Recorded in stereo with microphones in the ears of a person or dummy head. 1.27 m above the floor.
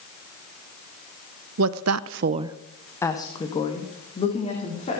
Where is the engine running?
No engine running in this recording.